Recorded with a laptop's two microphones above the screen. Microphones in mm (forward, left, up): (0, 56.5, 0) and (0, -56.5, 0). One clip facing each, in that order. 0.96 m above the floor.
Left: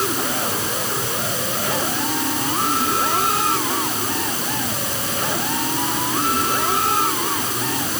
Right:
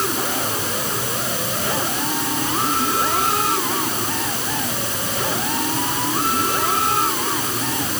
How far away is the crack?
No crack in this recording.